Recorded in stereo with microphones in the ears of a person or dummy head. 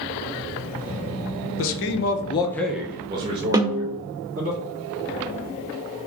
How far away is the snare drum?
About 0.6 m.